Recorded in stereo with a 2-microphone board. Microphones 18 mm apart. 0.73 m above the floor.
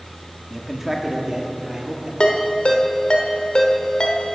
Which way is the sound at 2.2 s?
55° left (ahead or behind).